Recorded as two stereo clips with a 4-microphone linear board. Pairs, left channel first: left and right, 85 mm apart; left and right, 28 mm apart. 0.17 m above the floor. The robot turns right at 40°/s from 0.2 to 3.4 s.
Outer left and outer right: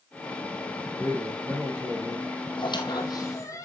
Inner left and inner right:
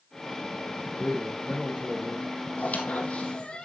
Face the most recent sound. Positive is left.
turn(degrees=40)  # may be behind; listen again after turning